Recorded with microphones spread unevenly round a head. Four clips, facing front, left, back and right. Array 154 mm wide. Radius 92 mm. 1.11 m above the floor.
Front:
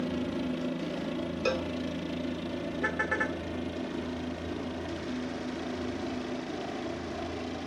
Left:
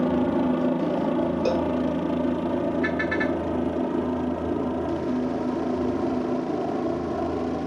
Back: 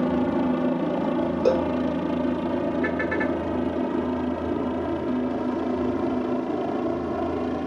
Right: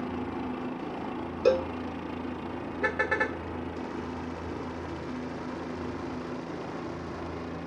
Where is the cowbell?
150° right.